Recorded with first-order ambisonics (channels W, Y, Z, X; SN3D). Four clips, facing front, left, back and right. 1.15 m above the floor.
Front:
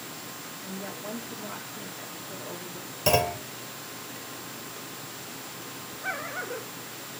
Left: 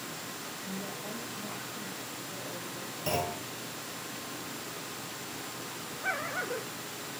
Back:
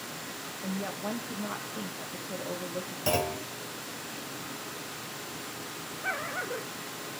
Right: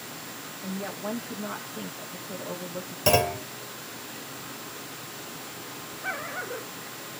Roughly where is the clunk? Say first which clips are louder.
Right 10 dB, front 5 dB; right.